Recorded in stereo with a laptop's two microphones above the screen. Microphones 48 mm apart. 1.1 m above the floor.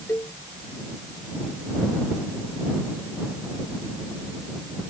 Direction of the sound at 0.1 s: 75° left (ahead or behind).